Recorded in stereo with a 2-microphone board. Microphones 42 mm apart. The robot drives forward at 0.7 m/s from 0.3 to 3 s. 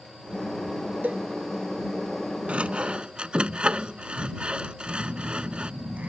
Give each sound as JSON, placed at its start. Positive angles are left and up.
{"t": 1.0, "sound": "a cowbell", "side_deg": -40}
{"t": 2.5, "sound": "sawing", "side_deg": -30}
{"t": 4.9, "sound": "a phone buzzing", "side_deg": -40}